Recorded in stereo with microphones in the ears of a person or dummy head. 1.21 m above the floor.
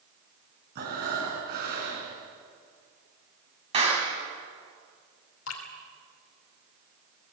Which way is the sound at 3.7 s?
30° right (ahead or behind).